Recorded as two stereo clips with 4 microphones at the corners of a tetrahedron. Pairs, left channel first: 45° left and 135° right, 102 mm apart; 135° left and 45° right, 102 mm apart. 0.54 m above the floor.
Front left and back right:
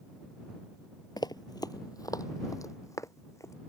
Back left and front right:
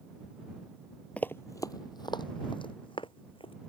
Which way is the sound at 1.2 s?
60° left.